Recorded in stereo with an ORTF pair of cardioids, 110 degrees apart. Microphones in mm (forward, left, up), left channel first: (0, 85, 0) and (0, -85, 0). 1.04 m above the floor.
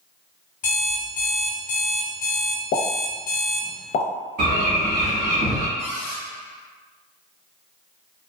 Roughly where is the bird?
Ahead right.